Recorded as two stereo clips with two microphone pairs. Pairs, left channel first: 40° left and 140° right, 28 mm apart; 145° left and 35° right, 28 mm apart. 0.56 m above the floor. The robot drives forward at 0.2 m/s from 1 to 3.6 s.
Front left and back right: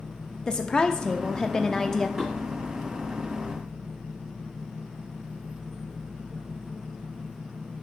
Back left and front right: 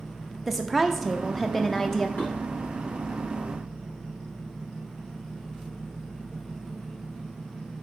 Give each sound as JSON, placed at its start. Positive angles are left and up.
{"t": 0.5, "sound": "a woman speaking", "azimuth_deg": 40, "distance_m": 0.6}
{"t": 2.2, "sound": "dishes clattering", "azimuth_deg": 155, "distance_m": 3.0}